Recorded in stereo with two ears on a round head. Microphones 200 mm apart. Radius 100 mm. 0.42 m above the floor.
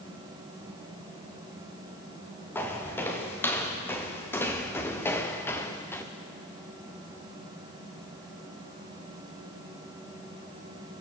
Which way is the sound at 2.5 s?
10° left (ahead or behind).